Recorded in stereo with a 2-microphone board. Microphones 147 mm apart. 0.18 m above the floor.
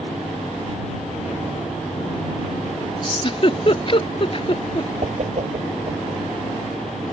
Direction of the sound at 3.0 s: 40° left (ahead or behind).